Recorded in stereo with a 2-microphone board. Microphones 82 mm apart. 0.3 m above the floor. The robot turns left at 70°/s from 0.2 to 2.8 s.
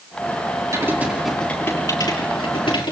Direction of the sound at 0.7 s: 40° right (ahead or behind).